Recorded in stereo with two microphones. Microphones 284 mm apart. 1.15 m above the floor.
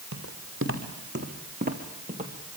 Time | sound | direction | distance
0.1 | footsteps | 55° right (ahead or behind) | 3.5 m